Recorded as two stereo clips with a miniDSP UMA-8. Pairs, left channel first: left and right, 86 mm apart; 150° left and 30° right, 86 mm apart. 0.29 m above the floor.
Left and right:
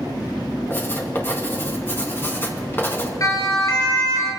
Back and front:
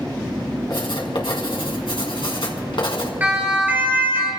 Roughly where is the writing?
Behind left.